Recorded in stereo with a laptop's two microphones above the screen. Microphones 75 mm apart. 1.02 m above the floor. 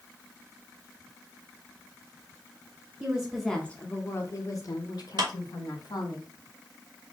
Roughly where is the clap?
Right.